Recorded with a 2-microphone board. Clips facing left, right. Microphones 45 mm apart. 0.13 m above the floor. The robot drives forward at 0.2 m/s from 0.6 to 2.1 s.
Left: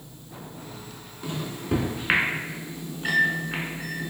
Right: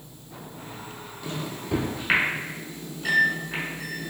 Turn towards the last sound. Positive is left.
turn(degrees=20)  # may be behind; listen again after turning